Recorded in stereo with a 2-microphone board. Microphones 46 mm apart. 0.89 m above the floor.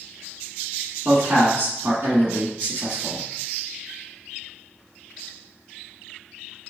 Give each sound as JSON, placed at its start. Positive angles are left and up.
{"t": 1.1, "sound": "a man speaking", "side_deg": -55, "distance_m": 1.4}